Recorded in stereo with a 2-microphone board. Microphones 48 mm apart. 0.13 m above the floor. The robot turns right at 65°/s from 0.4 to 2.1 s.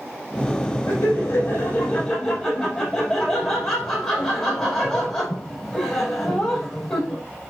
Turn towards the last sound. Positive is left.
turn(degrees=170)